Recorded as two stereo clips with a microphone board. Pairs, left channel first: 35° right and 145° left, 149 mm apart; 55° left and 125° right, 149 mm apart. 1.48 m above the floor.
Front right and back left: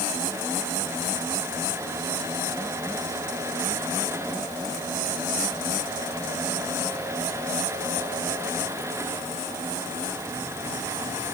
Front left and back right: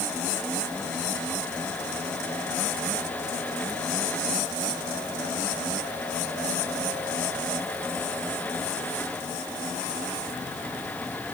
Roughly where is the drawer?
I don't hear a drawer.